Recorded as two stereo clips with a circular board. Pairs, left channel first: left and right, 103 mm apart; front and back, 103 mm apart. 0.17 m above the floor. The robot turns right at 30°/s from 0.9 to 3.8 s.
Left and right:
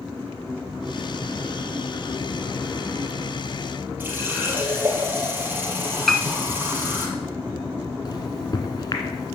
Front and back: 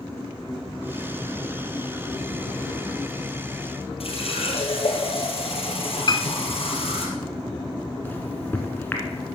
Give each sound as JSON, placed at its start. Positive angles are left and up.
{"t": 4.0, "sound": "a running tap", "azimuth_deg": -20, "distance_m": 2.5}
{"t": 6.1, "sound": "a piano", "azimuth_deg": 5, "distance_m": 1.0}
{"t": 8.1, "sound": "a microwave", "azimuth_deg": 65, "distance_m": 1.8}